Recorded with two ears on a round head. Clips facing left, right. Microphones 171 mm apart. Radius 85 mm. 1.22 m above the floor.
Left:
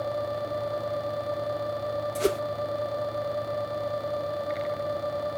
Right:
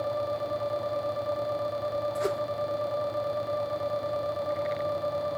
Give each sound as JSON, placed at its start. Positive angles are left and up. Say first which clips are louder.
{"t": 2.1, "sound": "a whoosh", "louder": "left 7 dB", "side_deg": 40}